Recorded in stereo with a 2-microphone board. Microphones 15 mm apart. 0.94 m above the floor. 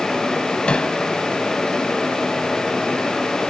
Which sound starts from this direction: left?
Hammering, at 0.7 s.